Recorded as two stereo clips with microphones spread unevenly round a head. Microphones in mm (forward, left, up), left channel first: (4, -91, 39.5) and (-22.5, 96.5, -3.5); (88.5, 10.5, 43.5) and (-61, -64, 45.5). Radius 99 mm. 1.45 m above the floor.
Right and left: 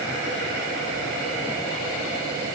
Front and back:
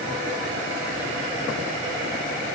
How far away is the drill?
No drill in this recording.